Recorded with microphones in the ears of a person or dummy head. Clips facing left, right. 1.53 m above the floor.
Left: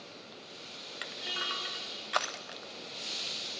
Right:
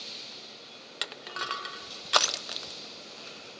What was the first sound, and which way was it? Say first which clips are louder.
Crushing: right 3 dB; 50° right (ahead or behind).